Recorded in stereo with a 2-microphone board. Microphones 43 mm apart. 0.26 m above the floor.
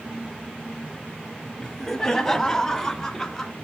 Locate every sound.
1.6 s laughter: 10° left (ahead or behind), 1.2 m